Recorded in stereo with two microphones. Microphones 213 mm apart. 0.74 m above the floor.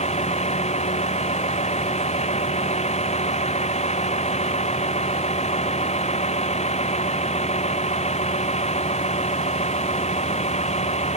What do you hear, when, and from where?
0.0 s a vehicle: 30° left (ahead or behind)